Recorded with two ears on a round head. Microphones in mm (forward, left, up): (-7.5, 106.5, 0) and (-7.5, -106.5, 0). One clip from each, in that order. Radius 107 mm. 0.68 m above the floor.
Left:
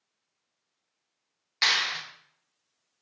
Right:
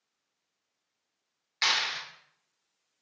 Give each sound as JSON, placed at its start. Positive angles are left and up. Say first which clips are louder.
{"t": 1.6, "sound": "a clap", "louder": "left 3 dB", "side_deg": 5, "distance_m": 1.4}